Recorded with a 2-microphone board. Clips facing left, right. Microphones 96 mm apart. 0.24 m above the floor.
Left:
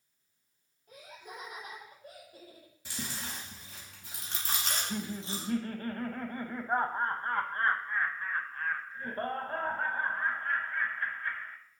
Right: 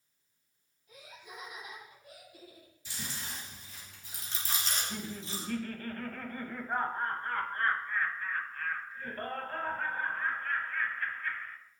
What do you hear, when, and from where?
0.9 s laughter: 50° left (ahead or behind), 6.5 m; by 2.7 s 45° left (ahead or behind), 7 m
2.9 s chewing: 65° left (ahead or behind), 3 m
4.7 s laughter: 30° left (ahead or behind), 1.2 m